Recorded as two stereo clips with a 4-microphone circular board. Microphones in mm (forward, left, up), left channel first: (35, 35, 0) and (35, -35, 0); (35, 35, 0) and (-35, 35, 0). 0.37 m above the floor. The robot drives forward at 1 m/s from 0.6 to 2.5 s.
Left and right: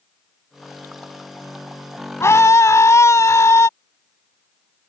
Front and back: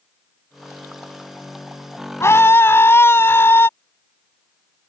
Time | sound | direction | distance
2.2 | a scream | 45° left | ?